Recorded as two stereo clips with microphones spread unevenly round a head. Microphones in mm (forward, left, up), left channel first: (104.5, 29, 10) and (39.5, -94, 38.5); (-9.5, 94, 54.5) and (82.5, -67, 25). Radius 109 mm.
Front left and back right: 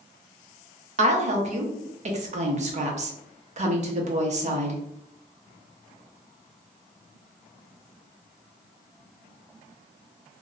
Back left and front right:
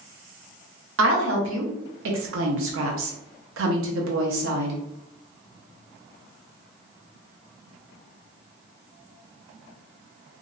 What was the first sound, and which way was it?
A woman speaking, 90° right.